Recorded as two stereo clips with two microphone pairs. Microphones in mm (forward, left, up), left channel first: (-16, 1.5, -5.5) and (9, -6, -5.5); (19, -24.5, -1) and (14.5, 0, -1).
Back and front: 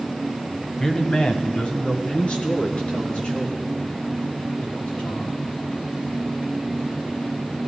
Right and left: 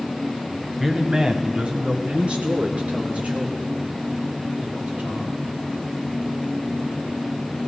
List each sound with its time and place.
0.8 s a man speaking: 175° right, 1.0 m; by 5.4 s 125° left, 6.5 m